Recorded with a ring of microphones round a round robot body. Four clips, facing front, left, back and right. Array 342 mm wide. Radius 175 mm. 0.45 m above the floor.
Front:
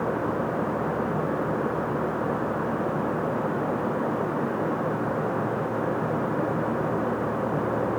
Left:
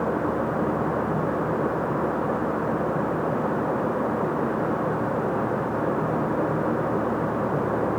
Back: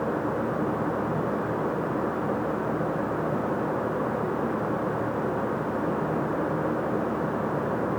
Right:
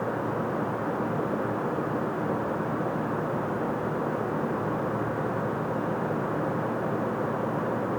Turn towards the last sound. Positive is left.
No sound to turn to.